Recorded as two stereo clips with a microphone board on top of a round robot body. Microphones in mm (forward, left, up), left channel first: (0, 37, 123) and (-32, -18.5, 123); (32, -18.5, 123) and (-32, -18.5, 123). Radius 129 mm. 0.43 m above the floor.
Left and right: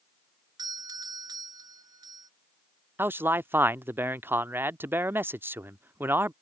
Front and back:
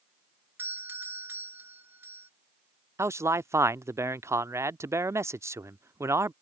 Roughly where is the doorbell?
Behind right.